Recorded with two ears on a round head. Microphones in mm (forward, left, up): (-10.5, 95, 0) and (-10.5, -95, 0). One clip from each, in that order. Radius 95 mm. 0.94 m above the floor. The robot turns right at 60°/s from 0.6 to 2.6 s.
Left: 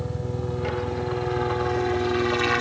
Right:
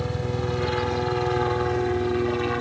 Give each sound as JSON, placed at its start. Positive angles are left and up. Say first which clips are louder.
{"t": 0.0, "sound": "a helicopter", "louder": "right 3 dB", "side_deg": -60}